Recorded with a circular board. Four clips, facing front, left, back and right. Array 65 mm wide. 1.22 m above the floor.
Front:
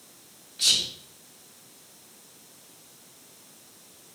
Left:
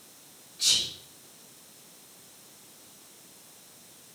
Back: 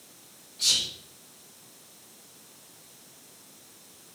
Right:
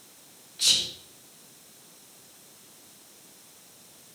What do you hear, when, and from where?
0.6 s whispering: 40° right, 0.9 m